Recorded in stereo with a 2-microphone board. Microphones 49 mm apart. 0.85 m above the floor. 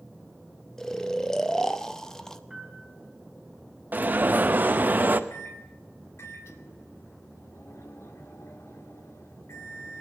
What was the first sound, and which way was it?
Snoring, 10° left (ahead or behind).